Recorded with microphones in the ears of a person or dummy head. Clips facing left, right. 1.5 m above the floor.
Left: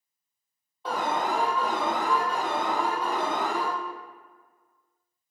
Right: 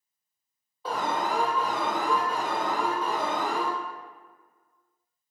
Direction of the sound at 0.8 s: 5° right (ahead or behind).